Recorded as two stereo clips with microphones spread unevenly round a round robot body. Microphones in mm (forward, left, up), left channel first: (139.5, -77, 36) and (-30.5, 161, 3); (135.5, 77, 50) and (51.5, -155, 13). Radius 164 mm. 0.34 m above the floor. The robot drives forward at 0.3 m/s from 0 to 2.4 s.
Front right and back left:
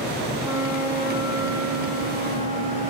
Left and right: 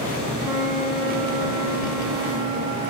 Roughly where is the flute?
Behind.